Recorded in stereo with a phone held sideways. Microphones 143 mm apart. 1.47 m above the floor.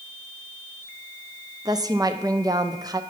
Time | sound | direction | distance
1.6 | a woman speaking | 25° right (ahead or behind) | 0.7 m